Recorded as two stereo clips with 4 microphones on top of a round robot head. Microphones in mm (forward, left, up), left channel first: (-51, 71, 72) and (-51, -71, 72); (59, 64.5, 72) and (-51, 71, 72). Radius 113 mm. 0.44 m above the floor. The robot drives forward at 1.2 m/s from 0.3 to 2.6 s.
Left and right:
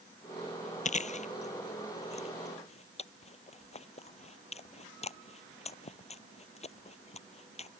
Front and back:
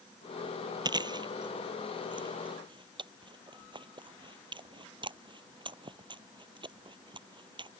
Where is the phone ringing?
I don't hear a phone ringing.